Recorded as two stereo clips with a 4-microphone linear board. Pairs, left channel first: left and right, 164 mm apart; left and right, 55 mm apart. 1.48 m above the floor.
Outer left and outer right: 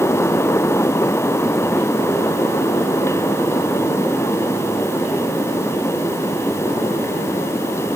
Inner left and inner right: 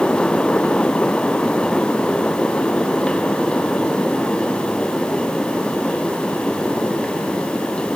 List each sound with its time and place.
Only background noise.